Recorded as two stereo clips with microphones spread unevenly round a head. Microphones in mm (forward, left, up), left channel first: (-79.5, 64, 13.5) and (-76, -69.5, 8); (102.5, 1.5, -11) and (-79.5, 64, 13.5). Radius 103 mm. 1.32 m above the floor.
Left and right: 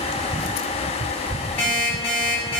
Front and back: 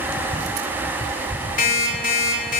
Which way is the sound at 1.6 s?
30° left.